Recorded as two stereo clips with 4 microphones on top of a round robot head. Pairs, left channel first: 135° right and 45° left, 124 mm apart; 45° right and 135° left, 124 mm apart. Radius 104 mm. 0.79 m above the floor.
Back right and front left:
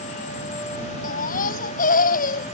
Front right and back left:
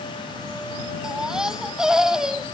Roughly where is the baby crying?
Behind right.